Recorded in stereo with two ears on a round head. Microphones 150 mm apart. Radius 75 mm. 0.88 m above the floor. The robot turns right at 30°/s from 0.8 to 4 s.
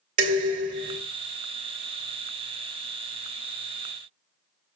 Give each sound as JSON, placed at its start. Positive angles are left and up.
{"t": 0.2, "sound": "dishes clattering", "side_deg": -50, "distance_m": 1.9}